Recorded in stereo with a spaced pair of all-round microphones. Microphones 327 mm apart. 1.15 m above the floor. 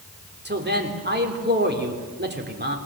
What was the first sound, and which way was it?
A man speaking, 30° right (ahead or behind).